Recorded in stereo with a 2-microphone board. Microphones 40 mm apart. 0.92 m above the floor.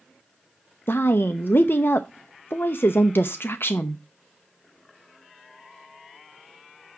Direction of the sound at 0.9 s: 65° left (ahead or behind).